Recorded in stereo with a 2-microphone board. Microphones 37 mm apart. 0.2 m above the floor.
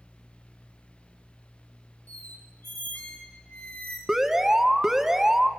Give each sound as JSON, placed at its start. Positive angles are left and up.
{"t": 2.1, "sound": "a squeak", "side_deg": 55, "distance_m": 3.0}
{"t": 4.1, "sound": "an alarm", "side_deg": -10, "distance_m": 1.2}